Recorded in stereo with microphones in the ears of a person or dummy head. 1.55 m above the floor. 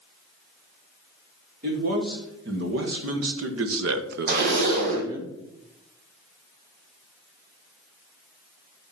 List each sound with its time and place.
1.6 s a man speaking: 60° right (ahead or behind), 2.5 m; by 5.3 s 15° right (ahead or behind), 1.5 m
4.3 s a zipper: 60° right (ahead or behind), 2.5 m